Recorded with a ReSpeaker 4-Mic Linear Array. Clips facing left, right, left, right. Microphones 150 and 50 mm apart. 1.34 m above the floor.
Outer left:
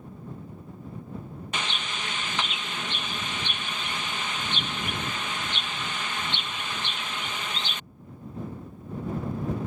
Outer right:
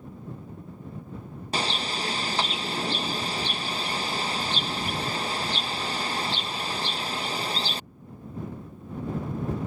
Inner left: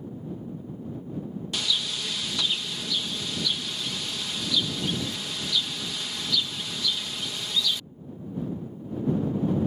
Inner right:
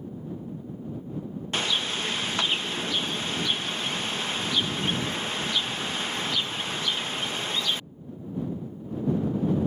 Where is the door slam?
I don't hear a door slam.